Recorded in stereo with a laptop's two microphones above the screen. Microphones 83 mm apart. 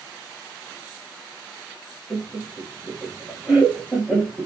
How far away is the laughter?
About 0.8 m.